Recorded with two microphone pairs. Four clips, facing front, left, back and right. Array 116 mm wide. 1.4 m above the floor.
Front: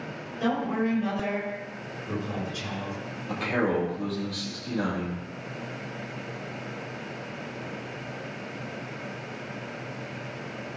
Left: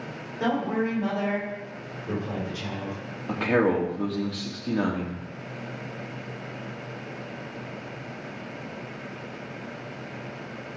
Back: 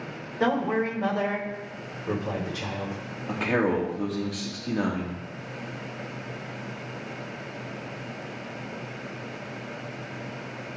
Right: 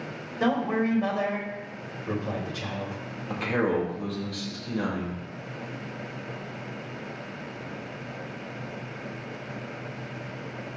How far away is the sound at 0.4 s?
About 4.5 m.